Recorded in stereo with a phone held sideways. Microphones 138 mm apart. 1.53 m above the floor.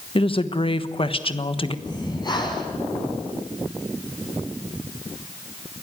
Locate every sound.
0.1 s a woman speaking: 40° left (ahead or behind), 1.2 m
1.9 s breathing: 35° left (ahead or behind), 4.5 m